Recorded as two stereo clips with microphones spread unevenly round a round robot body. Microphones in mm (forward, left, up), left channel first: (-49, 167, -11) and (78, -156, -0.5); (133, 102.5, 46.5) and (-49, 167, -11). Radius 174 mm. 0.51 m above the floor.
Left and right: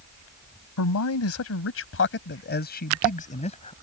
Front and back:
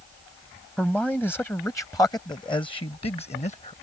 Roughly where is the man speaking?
Left.